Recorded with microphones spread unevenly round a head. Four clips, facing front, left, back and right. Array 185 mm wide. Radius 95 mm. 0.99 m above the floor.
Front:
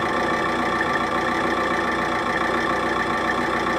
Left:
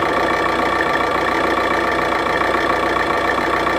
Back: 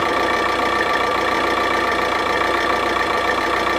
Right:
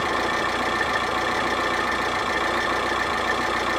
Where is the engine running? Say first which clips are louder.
Left 7 dB, back 4 dB; 120° left, 1.1 m.